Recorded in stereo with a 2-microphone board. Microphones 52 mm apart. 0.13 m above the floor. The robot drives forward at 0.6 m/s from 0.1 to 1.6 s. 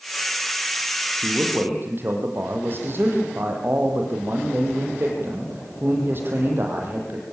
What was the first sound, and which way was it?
A man speaking, 45° right (ahead or behind).